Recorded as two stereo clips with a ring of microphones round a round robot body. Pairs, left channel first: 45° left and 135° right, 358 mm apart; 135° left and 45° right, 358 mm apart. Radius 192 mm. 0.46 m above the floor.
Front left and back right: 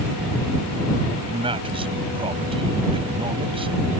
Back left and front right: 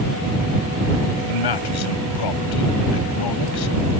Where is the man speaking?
150° left.